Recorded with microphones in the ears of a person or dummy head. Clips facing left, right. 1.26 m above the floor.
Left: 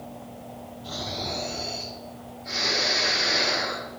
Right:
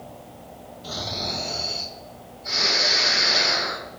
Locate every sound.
0.8 s snoring: 70° right (ahead or behind), 5.5 m